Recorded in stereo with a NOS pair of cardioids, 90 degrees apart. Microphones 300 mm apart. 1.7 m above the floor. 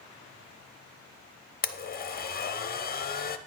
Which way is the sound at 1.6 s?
30° left.